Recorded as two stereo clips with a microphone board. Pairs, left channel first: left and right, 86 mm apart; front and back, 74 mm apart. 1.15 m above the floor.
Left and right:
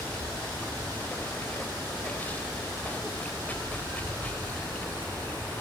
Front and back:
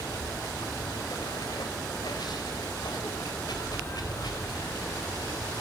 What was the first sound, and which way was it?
Running water, 20° left.